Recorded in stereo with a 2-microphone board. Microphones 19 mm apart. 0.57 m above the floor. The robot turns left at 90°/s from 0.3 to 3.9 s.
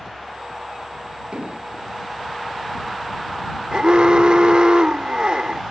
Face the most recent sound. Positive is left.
turn(degrees=-60)  # may be behind; listen again after turning